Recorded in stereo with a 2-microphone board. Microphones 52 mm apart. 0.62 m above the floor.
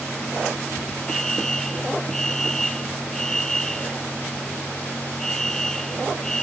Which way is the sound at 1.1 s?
10° left (ahead or behind).